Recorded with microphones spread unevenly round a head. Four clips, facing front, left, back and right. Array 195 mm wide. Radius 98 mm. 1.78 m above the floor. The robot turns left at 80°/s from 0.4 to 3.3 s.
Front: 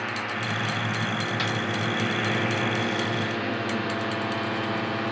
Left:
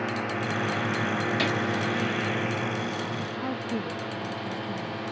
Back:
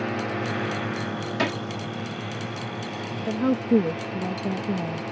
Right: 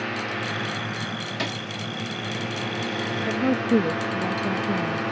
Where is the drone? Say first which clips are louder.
Even, back 3 dB; 175° left; by 5.1 s 55° right.